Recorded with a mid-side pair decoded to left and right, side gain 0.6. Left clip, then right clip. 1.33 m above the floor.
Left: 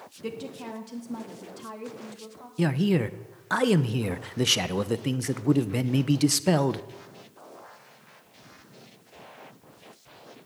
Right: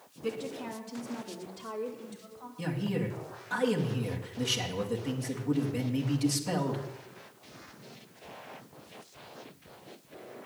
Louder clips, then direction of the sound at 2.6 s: Left 8 dB; 60° left.